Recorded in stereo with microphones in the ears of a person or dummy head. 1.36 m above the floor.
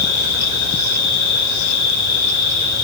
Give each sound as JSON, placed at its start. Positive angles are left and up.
{"t": 0.0, "sound": "an insect", "side_deg": 60, "distance_m": 9.0}